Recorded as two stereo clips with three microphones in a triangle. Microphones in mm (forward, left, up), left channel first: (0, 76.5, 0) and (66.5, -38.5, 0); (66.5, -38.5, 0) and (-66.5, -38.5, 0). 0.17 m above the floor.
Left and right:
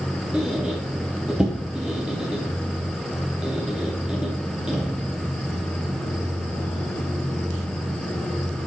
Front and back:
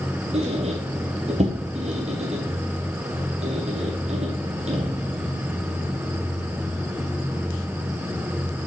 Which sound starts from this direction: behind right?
A squeak, at 0.3 s.